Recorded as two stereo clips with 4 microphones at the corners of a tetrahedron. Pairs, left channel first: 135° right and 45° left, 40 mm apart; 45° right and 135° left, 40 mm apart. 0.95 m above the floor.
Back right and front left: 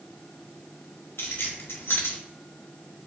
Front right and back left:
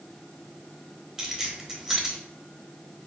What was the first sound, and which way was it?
Keys jangling, 150° right.